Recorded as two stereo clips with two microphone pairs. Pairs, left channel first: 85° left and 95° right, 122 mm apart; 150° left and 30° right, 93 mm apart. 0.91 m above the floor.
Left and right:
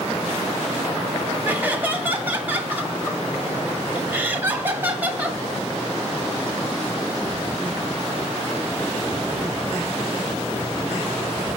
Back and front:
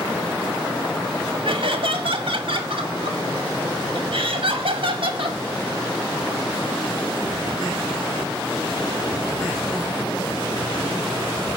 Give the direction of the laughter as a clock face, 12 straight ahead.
1 o'clock.